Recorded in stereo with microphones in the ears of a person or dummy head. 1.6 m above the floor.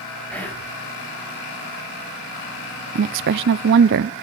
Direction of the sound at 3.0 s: 55° right (ahead or behind).